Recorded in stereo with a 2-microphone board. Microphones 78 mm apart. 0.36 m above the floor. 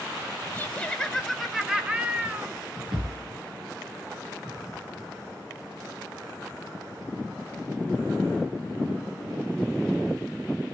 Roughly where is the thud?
Right.